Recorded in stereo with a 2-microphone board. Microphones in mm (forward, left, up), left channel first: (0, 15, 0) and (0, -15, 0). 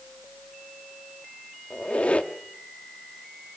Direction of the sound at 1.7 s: 50° left (ahead or behind).